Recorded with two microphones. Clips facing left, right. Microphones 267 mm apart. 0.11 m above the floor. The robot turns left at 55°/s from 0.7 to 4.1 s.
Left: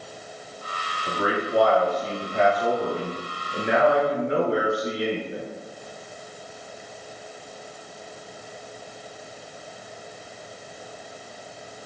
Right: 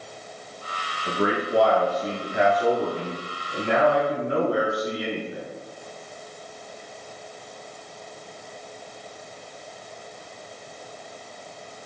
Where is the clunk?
I don't hear a clunk.